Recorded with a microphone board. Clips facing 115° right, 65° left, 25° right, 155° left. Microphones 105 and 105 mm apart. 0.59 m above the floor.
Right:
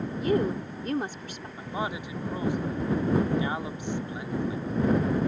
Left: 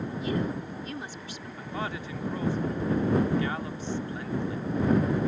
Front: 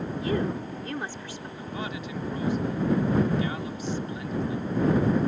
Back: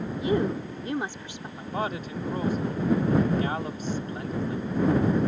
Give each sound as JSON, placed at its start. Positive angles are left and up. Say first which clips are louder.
{"t": 0.2, "sound": "a woman speaking", "louder": "right 6 dB, back 3 dB", "azimuth_deg": -135}
{"t": 1.6, "sound": "a man speaking", "louder": "right 2 dB, back 5 dB", "azimuth_deg": 180}